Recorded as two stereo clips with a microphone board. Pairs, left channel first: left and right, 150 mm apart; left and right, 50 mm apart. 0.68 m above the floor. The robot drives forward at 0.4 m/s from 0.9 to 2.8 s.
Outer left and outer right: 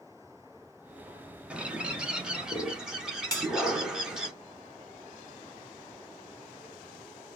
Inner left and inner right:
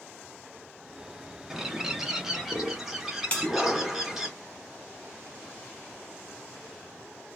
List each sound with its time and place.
1.5 s a bird: 10° right (ahead or behind), 0.7 m; by 4.3 s 5° right (ahead or behind), 1.1 m
3.3 s a bell: 25° left (ahead or behind), 1.4 m